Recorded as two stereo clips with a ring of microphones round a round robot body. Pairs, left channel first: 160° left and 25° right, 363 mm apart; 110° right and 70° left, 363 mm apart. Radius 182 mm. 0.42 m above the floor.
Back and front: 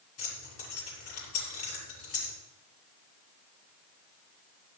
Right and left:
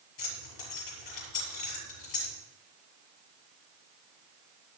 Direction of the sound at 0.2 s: 150° right.